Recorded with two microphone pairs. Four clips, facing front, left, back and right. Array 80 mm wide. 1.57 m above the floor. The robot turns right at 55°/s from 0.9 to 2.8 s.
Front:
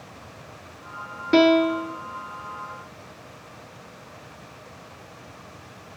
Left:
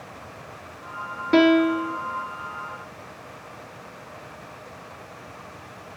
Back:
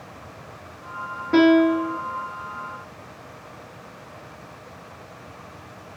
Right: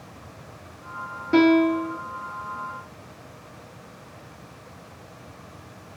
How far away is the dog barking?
No dog barking in this recording.